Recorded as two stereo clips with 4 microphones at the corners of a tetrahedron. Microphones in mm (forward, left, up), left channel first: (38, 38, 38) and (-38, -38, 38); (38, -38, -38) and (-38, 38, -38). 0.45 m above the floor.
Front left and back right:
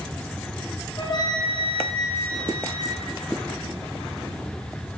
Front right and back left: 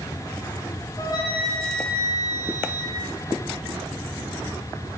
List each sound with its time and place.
1.0 s a flute: 10° left, 2.5 m